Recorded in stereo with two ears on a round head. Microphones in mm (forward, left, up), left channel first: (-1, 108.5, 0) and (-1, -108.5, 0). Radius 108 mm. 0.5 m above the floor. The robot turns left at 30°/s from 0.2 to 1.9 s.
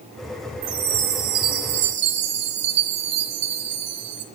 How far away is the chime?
About 3.5 m.